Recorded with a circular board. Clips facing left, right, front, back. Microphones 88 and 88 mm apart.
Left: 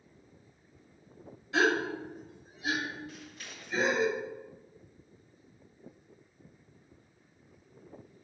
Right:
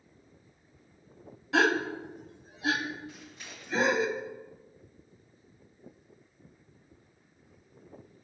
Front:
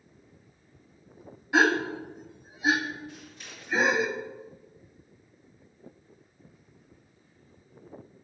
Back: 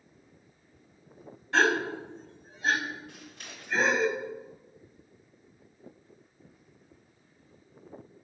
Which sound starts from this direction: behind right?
Scissors, at 3.1 s.